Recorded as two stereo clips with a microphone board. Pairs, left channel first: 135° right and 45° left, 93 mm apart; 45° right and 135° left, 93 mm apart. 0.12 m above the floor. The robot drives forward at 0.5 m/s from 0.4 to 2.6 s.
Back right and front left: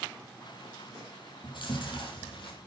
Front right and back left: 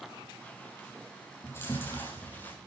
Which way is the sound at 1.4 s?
105° right.